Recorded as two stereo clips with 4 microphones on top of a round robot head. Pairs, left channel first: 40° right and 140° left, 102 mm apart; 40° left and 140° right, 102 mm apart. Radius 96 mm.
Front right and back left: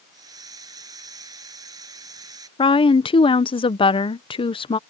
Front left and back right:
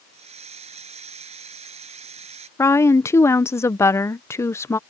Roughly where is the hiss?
Behind.